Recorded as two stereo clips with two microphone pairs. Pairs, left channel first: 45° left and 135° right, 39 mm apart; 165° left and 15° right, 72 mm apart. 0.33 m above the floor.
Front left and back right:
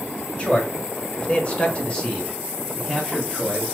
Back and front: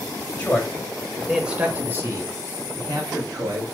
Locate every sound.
0.4 s a man speaking: 100° left, 1.3 m; by 3.6 s 40° right, 1.9 m